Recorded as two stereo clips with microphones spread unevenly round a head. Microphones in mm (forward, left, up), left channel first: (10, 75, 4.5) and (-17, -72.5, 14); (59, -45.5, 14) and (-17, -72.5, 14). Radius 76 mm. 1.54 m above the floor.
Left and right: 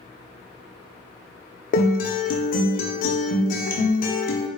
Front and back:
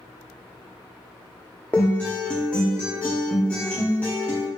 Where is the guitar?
95° left, 0.6 m.